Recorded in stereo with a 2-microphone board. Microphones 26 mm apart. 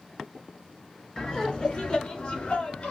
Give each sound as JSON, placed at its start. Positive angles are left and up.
{"t": 1.2, "sound": "laughter", "side_deg": 25, "distance_m": 1.3}